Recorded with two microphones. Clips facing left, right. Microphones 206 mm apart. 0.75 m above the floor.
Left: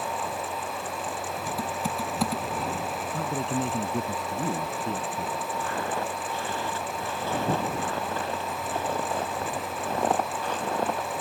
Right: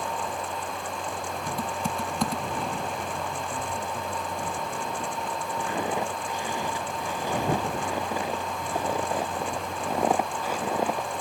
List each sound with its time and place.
1.5 s typing on a keyboard: centre (ahead or behind)
3.1 s a man speaking: 70° left (ahead or behind)
5.6 s footsteps: 15° right (ahead or behind); by 11.2 s 5° right (ahead or behind)